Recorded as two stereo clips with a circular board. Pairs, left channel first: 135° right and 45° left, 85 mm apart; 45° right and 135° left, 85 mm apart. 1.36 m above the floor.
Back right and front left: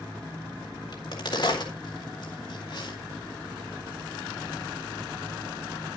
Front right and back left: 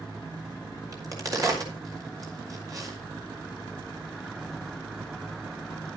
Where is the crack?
175° right, 4 m.